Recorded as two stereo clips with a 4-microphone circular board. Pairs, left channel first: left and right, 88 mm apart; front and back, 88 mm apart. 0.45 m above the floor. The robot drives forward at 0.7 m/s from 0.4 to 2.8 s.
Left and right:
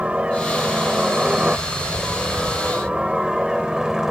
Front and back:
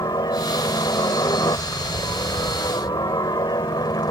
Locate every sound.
0.0 s a helicopter: 15° right; by 4.1 s 5° right